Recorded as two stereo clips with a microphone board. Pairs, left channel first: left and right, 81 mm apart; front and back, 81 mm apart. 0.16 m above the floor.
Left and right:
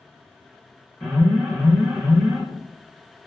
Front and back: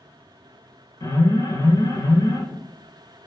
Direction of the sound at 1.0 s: 5° left.